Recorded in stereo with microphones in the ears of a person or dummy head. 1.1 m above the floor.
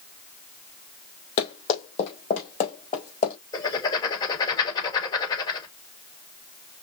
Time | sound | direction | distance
1.4 | running footsteps | 40° left (ahead or behind) | 2.5 m
3.5 | writing | 25° left (ahead or behind) | 3.5 m